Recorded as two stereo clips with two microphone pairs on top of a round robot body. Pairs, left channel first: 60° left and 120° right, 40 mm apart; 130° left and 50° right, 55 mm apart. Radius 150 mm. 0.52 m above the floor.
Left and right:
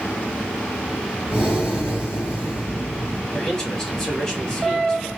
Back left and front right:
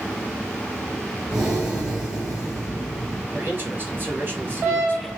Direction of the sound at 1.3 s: 25° left.